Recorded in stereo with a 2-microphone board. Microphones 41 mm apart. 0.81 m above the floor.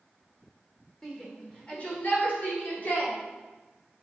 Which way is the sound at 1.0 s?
15° left (ahead or behind).